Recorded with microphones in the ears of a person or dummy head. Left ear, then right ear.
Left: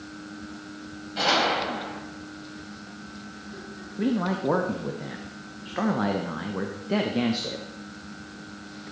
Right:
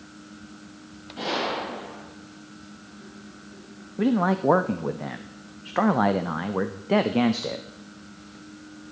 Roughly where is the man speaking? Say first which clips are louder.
Right 4 dB; right.